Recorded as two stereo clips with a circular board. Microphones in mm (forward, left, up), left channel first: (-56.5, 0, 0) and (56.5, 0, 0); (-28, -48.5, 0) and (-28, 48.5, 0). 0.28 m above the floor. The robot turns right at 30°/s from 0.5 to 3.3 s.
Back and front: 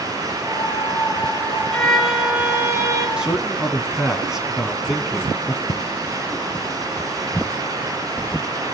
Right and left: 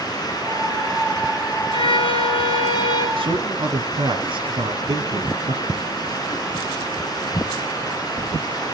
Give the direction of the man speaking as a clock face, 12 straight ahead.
9 o'clock.